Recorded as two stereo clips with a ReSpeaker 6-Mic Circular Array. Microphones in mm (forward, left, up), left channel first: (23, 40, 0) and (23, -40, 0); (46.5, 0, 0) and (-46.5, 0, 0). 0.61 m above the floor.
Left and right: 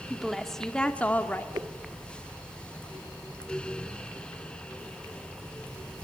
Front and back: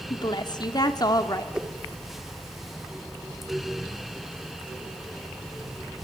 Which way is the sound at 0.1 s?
5° right.